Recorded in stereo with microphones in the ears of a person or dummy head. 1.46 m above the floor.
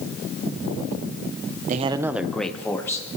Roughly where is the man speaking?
Right.